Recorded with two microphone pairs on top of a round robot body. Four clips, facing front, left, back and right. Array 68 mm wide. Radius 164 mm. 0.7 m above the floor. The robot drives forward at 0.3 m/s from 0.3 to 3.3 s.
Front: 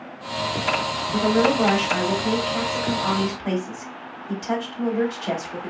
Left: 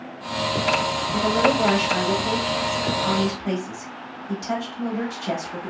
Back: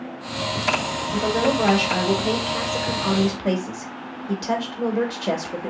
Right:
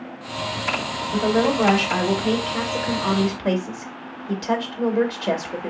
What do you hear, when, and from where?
1.1 s a woman speaking: 95° right, 1.4 m; by 5.7 s 130° right, 1.6 m